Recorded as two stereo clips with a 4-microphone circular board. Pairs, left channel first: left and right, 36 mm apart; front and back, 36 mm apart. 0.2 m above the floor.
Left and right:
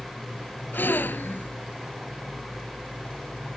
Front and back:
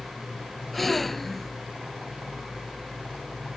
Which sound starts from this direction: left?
A gasp, at 0.7 s.